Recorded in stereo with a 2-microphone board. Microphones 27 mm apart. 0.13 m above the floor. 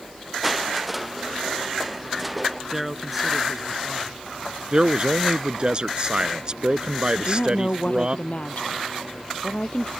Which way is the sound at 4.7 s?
35° right (ahead or behind).